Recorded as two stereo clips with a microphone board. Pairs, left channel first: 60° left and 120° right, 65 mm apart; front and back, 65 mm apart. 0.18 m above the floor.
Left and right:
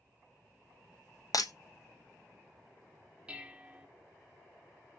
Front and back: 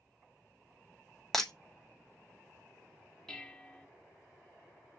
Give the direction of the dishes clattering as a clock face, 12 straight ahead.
2 o'clock.